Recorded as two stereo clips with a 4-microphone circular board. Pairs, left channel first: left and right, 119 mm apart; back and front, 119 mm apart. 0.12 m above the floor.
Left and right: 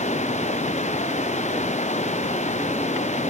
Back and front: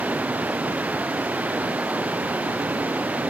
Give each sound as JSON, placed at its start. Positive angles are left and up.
{"t": 0.0, "sound": "running water", "azimuth_deg": 80}